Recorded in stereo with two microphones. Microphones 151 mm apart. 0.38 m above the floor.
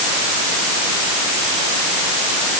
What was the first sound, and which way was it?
Only background noise.